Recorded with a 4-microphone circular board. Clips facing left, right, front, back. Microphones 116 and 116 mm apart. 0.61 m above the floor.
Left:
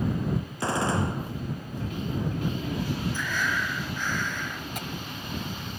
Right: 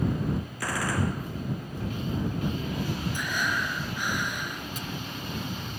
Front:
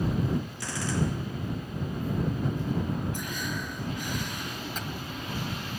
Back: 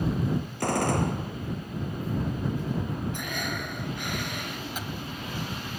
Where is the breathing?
165° right.